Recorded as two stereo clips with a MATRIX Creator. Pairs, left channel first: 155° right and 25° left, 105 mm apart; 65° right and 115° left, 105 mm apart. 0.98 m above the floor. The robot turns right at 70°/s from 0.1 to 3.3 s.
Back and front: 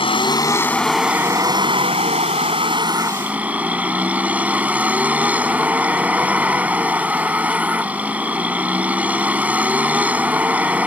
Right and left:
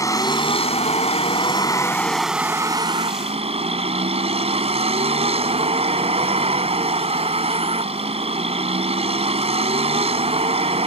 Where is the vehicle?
125° right; by 10.9 s 100° left.